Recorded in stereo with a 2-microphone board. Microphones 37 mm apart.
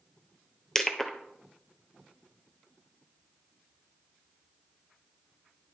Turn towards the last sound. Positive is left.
turn(degrees=15)  # may be behind; listen again after turning